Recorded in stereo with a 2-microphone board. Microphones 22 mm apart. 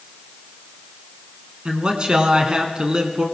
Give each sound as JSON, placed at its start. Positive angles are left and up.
{"t": 1.6, "sound": "a man speaking", "side_deg": -40, "distance_m": 1.5}